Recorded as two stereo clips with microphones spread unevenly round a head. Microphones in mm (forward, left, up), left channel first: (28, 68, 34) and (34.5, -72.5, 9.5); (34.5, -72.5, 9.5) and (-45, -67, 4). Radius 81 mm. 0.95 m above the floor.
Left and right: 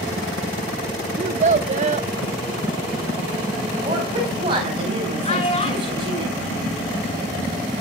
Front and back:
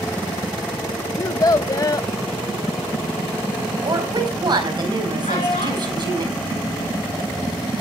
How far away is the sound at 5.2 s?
About 6.5 m.